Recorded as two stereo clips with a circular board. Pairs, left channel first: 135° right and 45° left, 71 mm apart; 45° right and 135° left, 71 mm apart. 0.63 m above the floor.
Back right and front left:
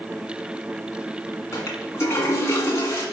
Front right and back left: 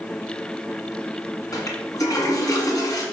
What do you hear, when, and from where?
1.5 s a toilet flushing: 80° right, 1.7 m